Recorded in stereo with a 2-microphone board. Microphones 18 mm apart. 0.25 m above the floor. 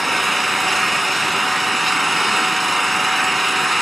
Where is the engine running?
10° left (ahead or behind), 1.2 m.